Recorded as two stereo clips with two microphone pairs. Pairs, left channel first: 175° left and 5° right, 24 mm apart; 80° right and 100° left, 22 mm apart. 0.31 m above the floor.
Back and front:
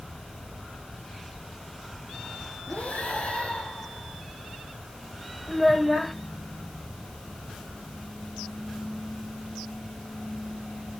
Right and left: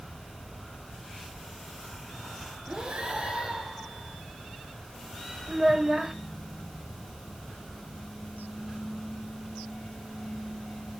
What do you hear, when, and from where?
2.7 s breathing: 155° left, 7 m
5.5 s a child speaking: 110° left, 0.8 m